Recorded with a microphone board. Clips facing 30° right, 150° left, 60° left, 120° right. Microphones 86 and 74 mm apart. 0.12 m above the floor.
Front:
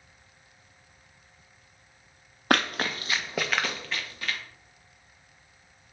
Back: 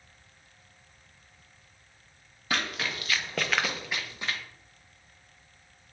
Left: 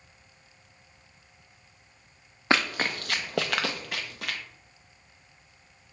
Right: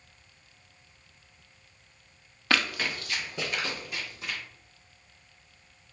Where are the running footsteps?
Straight ahead, 0.6 m; by 4.4 s 85° left, 1.0 m.